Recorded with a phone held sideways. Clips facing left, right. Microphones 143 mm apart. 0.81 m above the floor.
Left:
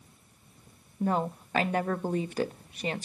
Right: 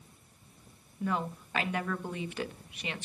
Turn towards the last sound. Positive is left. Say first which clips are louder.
# left 5 dB
turn(degrees=40)  # may be behind; listen again after turning